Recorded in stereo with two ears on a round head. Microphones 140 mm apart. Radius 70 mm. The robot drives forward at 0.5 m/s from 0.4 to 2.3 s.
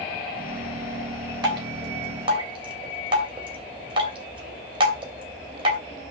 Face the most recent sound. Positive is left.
turn(degrees=-35)  # may be behind; listen again after turning